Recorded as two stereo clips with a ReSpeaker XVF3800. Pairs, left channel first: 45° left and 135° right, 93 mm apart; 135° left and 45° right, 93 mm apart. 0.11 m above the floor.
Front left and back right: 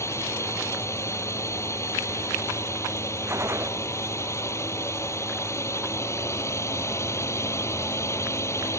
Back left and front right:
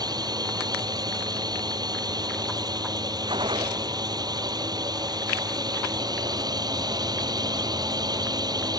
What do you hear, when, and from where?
0.0 s a drone: 10° right
3.3 s a gunshot: 75° right